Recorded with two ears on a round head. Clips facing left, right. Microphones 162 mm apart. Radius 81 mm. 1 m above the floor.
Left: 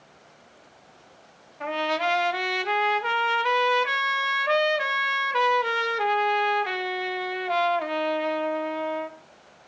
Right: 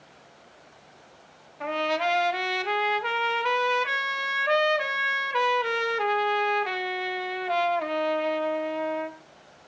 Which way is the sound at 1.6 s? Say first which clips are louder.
Even; centre (ahead or behind).